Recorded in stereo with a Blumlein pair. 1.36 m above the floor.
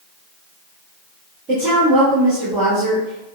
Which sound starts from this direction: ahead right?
A woman speaking, at 1.5 s.